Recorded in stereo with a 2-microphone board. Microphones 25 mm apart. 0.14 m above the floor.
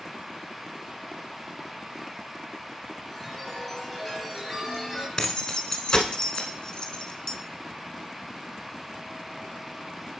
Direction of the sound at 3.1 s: 5° right (ahead or behind).